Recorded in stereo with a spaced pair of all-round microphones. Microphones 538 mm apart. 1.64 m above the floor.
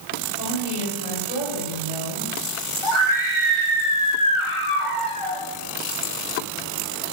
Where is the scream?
65° left (ahead or behind), 3.5 m.